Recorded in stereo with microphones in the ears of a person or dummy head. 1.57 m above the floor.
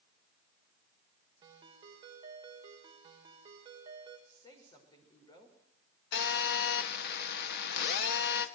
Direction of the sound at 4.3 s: 30° left (ahead or behind).